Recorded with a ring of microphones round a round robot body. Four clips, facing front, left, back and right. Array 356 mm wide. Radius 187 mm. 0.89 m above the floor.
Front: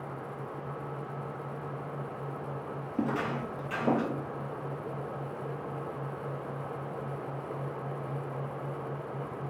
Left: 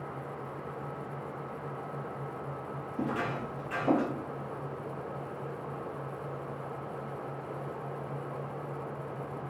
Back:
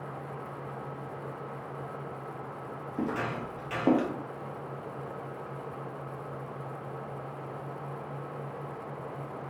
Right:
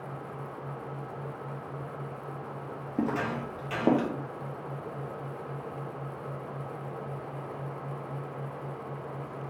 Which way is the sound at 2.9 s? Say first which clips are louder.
Right 3 dB, front 1 dB; 80° right.